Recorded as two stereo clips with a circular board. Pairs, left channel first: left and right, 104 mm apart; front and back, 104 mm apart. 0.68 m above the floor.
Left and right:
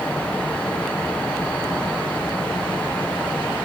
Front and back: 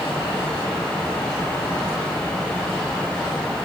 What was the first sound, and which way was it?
Only background noise.